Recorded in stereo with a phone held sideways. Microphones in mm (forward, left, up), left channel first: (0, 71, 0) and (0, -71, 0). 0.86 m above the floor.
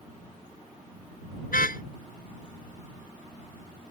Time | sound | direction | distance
1.5 | a car horn | 85° left | ?